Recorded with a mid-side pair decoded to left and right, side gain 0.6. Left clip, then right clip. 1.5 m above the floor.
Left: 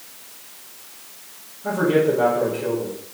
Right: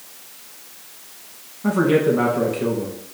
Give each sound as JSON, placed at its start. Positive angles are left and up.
{"t": 1.6, "sound": "a man speaking", "azimuth_deg": -60, "distance_m": 2.0}